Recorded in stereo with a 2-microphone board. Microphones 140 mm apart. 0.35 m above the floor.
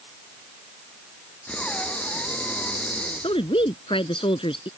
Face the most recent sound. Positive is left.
turn(degrees=40)  # may be behind; listen again after turning